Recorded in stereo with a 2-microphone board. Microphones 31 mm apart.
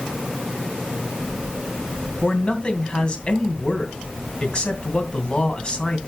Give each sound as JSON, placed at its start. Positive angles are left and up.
{"t": 2.2, "sound": "a man speaking", "side_deg": 30, "distance_m": 2.5}